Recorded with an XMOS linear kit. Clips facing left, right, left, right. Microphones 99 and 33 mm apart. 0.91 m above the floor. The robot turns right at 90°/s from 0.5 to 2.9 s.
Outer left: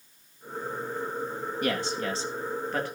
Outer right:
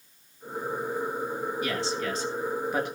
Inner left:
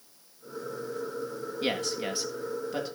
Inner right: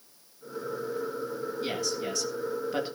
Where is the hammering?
I don't hear hammering.